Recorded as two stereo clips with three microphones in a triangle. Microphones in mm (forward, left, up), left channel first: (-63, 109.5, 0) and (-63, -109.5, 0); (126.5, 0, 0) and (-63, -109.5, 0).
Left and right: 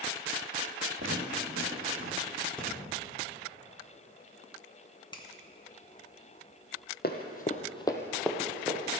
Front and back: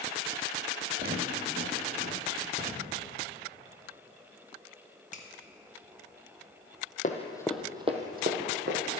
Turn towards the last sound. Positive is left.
turn(degrees=-165)